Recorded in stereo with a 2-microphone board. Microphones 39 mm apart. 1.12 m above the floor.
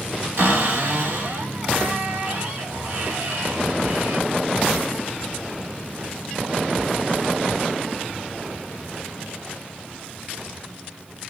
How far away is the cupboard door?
About 2 m.